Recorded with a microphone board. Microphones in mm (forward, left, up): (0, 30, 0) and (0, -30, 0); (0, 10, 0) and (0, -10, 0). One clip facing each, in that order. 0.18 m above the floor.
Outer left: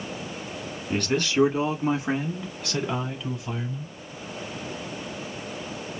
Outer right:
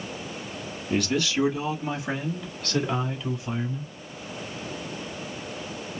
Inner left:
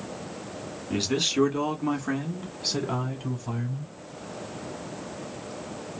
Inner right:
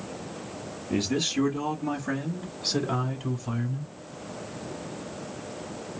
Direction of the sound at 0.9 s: 50° left (ahead or behind).